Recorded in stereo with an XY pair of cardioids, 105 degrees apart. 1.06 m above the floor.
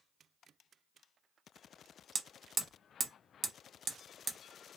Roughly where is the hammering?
Ahead right.